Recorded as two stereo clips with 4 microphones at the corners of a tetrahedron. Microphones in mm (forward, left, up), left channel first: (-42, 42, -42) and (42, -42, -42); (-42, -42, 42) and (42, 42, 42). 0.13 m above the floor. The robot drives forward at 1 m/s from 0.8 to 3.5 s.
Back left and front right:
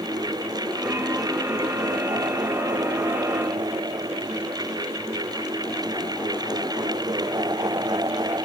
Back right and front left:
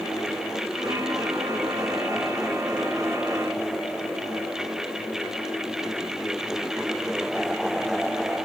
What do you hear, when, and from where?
Only background noise.